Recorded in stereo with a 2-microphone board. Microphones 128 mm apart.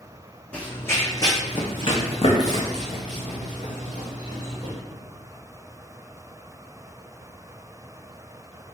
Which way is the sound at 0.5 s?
10° left (ahead or behind).